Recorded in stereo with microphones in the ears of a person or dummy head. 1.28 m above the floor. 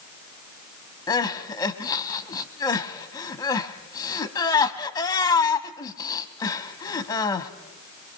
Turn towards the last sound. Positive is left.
turn(degrees=20)  # may be behind; listen again after turning